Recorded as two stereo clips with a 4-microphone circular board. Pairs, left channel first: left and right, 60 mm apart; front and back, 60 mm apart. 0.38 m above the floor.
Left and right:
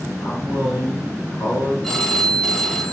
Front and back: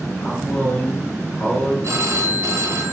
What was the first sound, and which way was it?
A man speaking, 55° left.